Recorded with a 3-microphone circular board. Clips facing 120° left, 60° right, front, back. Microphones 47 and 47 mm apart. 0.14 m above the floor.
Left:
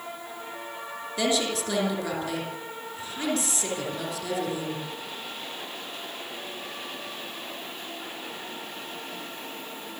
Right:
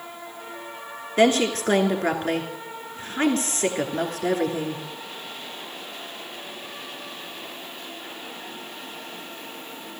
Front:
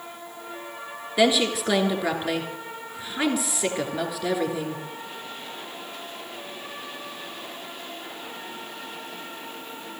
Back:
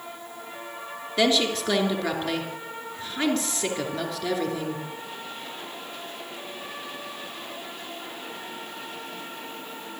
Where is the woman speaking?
75° right, 2.5 m.